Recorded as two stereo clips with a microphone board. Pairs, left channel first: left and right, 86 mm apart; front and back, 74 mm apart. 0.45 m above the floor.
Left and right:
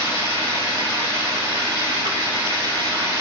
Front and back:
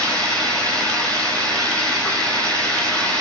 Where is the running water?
75° right, 7.5 m.